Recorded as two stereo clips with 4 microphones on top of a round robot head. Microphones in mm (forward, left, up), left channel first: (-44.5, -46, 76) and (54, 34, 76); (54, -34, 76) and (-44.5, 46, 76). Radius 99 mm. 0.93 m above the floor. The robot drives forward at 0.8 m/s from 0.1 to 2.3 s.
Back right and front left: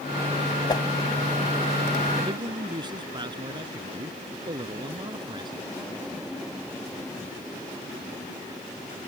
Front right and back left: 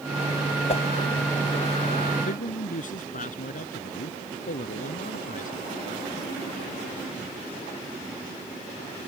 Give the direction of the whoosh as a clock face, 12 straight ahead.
3 o'clock.